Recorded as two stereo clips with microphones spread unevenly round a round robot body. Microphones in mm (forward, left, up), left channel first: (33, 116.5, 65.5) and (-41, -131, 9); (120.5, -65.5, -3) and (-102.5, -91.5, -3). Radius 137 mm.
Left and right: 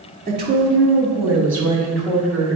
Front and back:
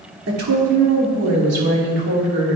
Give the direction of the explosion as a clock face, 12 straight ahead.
No explosion in this recording.